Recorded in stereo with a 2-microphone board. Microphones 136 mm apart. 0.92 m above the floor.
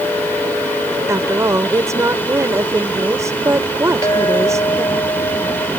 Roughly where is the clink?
Left.